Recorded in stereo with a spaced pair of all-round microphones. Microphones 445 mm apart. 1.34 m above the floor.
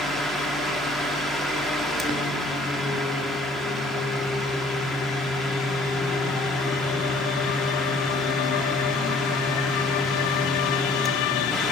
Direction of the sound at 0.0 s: Centre (ahead or behind).